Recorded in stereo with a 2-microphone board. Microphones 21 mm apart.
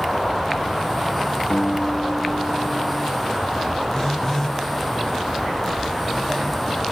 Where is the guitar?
65° left (ahead or behind), 0.8 m.